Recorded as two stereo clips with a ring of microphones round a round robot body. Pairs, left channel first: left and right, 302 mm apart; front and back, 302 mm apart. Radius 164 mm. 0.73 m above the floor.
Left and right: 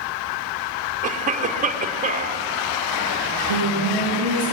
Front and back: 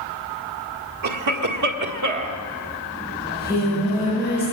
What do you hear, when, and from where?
1.0 s a cough: 155° right, 1.8 m
3.2 s singing: 95° left, 10 m